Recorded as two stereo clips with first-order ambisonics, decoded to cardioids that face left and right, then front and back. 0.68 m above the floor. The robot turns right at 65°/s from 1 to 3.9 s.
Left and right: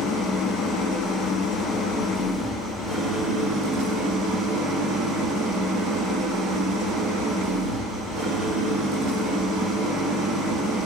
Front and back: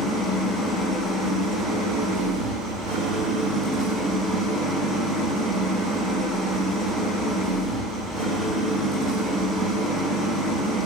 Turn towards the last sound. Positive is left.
turn(degrees=-110)